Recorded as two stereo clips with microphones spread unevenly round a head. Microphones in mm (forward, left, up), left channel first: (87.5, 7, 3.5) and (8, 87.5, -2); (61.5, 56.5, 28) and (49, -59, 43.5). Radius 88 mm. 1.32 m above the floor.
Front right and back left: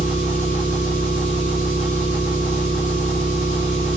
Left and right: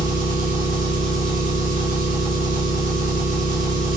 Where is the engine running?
95° right, 5 m.